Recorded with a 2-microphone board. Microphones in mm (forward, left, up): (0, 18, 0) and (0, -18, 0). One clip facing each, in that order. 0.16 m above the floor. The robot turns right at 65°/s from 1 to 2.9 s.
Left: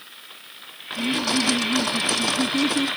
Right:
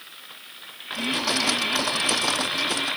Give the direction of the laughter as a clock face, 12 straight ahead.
12 o'clock.